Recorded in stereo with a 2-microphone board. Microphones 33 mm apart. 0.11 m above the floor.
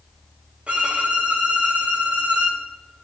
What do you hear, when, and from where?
0.7 s a violin: 35° right (ahead or behind), 1.5 m